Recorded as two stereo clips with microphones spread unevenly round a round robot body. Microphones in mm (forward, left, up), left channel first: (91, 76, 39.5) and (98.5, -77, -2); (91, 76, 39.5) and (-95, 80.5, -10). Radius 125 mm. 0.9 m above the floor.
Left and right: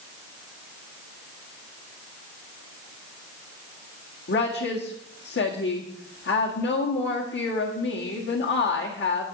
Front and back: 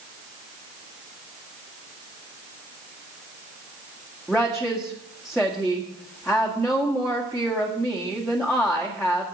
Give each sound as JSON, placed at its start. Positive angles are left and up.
{"t": 4.3, "sound": "a woman speaking", "azimuth_deg": 90, "distance_m": 1.9}